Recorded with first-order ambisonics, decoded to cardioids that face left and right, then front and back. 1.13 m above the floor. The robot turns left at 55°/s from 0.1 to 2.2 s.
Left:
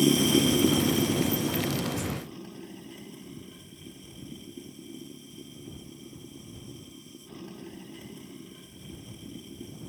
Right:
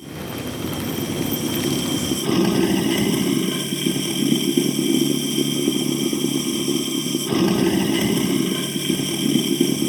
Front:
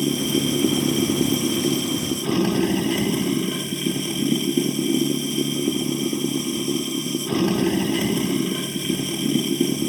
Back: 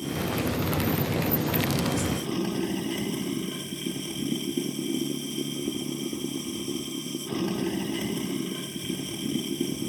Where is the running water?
50° left; by 9.9 s 65° right.